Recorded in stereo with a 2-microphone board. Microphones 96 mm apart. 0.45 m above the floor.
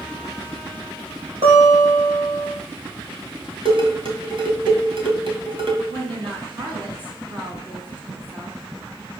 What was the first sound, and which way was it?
A guitar, 85° right.